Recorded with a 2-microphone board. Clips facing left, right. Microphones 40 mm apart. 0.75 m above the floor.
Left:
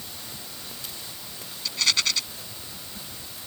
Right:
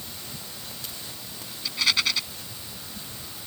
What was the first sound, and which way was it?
A rattle, 10° right (ahead or behind).